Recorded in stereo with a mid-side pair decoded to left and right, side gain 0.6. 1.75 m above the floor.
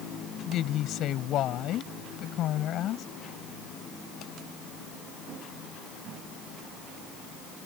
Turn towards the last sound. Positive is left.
turn(degrees=55)